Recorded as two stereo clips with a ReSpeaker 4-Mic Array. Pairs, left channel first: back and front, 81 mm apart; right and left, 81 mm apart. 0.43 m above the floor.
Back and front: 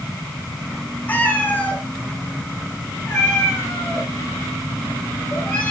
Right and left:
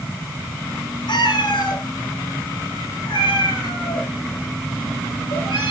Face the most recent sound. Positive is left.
turn(degrees=-115)